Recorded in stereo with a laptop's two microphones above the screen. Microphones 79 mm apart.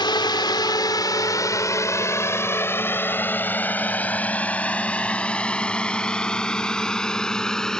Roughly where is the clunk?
I don't hear a clunk.